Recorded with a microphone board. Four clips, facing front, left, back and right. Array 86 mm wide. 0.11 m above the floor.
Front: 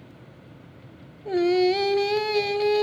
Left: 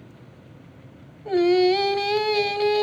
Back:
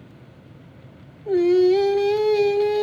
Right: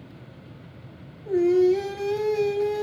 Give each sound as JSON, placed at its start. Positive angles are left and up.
{"t": 1.2, "sound": "singing", "azimuth_deg": 60, "distance_m": 0.8}